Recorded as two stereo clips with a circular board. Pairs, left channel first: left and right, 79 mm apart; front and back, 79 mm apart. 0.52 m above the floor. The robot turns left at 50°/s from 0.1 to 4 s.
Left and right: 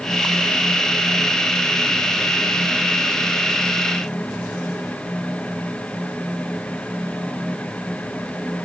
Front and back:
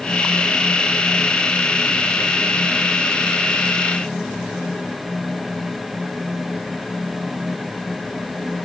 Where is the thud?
I don't hear a thud.